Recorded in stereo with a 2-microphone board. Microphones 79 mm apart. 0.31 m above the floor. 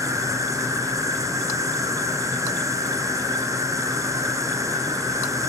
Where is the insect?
45° right (ahead or behind), 1.2 m.